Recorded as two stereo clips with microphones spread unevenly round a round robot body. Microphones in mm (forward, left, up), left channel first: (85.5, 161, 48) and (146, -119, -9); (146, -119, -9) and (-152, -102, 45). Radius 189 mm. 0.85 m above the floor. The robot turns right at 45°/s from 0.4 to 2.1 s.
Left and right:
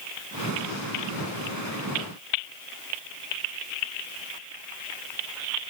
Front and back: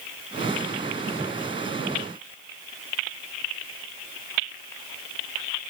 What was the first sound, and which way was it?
Only background noise.